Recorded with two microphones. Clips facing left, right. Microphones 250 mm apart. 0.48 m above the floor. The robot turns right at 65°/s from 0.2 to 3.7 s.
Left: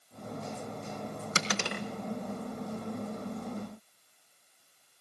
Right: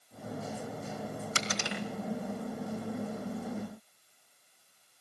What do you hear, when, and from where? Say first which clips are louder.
1.4 s a dropped coin: left 5 dB; 70° left (ahead or behind), 1.6 m; by 1.8 s 50° left (ahead or behind), 1.6 m